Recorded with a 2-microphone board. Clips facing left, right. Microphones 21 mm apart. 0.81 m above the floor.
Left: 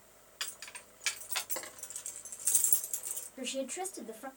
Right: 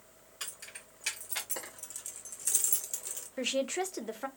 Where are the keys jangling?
35° left (ahead or behind), 1.6 m; by 3.3 s 25° right (ahead or behind), 0.9 m.